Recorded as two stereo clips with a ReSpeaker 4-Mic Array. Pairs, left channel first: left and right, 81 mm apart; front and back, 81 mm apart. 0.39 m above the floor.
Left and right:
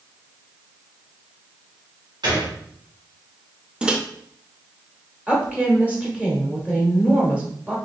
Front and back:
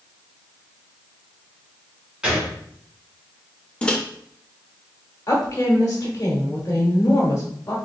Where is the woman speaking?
25° right, 1.1 m.